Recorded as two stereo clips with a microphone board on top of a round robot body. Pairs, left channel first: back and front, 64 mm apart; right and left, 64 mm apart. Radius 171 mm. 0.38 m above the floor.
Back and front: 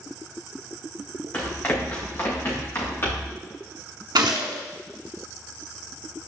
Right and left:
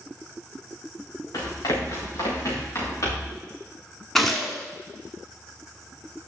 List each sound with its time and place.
1.3 s running footsteps: 115° right, 3.5 m; by 3.4 s 135° right, 5 m
4.2 s a gunshot: 5° right, 0.7 m